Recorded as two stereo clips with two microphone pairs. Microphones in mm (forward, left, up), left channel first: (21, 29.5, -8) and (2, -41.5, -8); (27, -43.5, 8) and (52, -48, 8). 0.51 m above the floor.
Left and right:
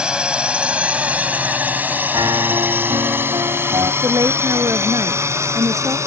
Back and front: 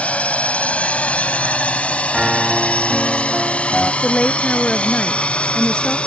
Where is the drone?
Straight behind; by 6.1 s 155° right.